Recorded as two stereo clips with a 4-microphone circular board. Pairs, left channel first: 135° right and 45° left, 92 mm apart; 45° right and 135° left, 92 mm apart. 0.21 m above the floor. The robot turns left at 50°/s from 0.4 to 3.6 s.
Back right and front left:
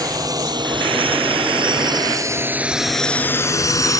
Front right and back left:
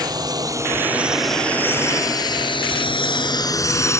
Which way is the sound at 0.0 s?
90° left.